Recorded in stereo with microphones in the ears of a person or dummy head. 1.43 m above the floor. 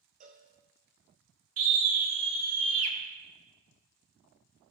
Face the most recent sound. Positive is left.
turn(degrees=-80)